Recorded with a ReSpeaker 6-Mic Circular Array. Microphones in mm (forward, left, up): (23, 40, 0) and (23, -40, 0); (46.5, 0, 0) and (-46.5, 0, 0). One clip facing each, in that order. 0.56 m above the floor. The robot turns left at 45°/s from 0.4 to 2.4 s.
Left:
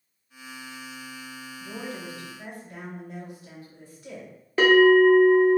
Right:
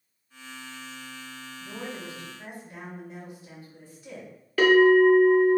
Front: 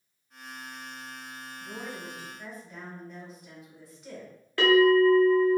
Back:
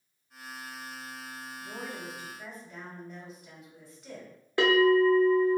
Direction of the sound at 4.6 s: 125° left.